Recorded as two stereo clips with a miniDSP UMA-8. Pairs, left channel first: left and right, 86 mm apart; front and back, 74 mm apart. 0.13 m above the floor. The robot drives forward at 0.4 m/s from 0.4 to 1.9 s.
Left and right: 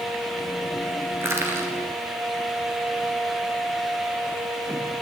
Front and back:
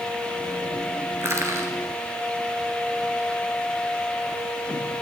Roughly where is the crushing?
Behind right.